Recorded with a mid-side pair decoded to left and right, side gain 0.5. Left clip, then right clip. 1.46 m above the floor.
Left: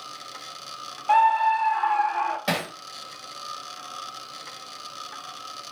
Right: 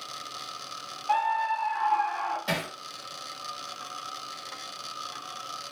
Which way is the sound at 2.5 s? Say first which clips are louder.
Left 3 dB; 55° left.